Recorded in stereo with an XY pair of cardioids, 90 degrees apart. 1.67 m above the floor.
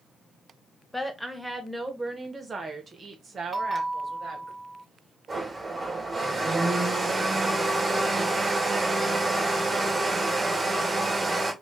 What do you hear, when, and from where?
0.9 s a woman speaking: 5° left, 1.4 m; by 4.5 s 55° right, 2.5 m
3.5 s a bell: 20° right, 0.9 m
5.3 s a blender: 45° right, 2 m